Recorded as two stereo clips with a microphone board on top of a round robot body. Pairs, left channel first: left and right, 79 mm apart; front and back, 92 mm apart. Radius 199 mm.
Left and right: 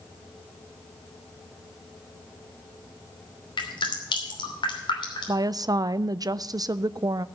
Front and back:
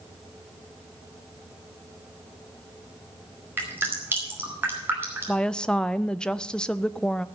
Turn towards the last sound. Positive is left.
turn(degrees=-80)